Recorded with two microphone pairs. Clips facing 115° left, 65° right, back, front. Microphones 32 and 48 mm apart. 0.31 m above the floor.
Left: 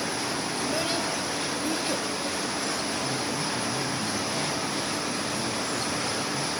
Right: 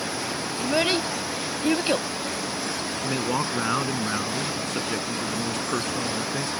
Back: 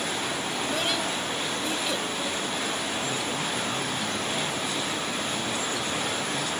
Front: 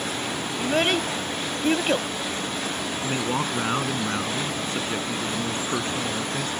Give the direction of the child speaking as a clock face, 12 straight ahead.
1 o'clock.